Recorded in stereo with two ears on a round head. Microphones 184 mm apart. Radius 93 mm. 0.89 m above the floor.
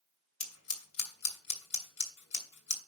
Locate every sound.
0.4 s scissors: 85° left, 2.5 m